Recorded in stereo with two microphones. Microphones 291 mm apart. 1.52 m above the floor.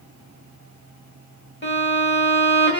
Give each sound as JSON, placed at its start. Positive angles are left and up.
{"t": 1.6, "sound": "a violin", "side_deg": 40, "distance_m": 1.0}